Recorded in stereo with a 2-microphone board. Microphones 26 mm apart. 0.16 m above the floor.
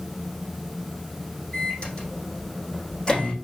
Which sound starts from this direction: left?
A microwave, at 1.5 s.